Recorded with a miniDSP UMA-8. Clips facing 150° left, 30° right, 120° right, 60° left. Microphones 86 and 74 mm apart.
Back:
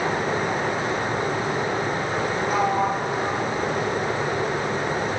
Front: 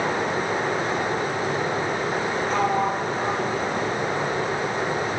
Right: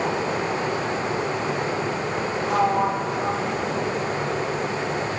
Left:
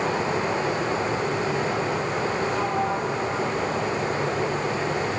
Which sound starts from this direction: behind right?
A sliding door, at 2.5 s.